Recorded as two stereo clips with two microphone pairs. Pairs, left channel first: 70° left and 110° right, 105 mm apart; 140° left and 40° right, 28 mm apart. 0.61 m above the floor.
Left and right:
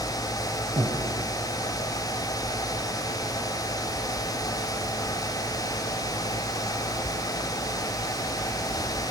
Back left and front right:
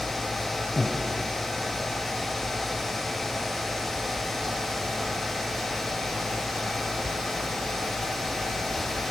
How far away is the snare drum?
I don't hear a snare drum.